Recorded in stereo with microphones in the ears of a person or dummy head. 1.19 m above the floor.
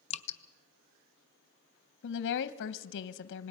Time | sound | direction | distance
0.1 | dripping | 30° left (ahead or behind) | 0.7 m
2.0 | a woman speaking | 65° left (ahead or behind) | 0.7 m